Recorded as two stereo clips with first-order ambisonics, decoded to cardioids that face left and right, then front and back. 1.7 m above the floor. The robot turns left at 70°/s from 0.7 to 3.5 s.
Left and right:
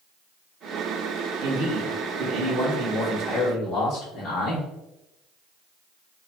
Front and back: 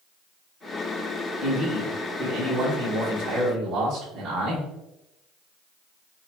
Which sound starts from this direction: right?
A man speaking, at 1.4 s.